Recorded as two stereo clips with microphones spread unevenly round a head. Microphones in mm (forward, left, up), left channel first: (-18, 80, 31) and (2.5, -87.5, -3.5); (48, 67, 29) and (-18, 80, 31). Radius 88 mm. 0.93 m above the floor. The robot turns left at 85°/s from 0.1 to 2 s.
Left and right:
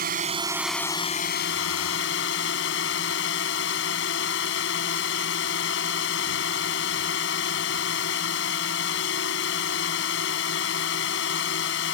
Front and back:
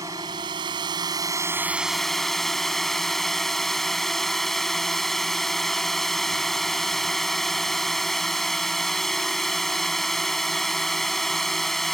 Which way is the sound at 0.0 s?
125° right.